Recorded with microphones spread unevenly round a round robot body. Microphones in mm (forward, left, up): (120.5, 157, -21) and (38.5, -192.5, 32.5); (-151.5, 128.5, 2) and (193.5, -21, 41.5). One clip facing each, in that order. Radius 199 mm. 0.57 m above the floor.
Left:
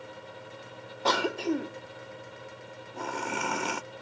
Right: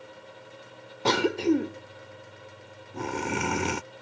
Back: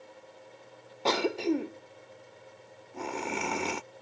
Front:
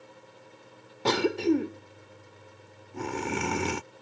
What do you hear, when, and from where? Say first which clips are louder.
1.1 s a cough: right 5 dB, front 4 dB; 75° right